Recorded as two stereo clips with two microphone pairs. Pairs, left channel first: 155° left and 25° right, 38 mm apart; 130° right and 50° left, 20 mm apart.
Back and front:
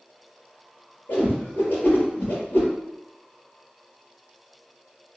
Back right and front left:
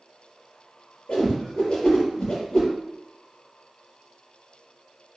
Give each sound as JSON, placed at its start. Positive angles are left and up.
{"t": 1.1, "sound": "a whoosh", "azimuth_deg": -175, "distance_m": 3.5}